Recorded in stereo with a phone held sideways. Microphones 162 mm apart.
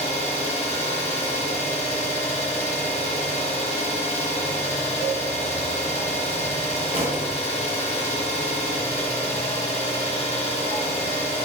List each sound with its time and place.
0.0 s an engine running: 40° left (ahead or behind), 0.9 m
5.0 s a cowbell: 70° left (ahead or behind), 1.8 m
6.9 s a thud: 40° right (ahead or behind), 1.0 m